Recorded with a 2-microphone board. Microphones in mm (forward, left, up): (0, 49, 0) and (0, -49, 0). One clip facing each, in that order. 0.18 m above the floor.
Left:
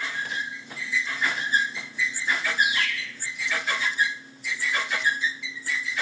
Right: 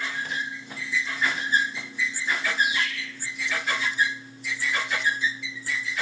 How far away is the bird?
About 5.5 m.